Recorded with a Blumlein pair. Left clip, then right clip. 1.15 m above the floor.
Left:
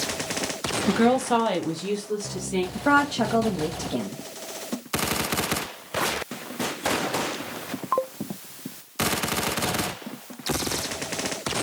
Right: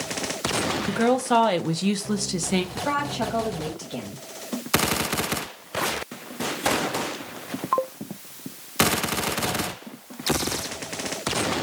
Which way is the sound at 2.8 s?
15° left.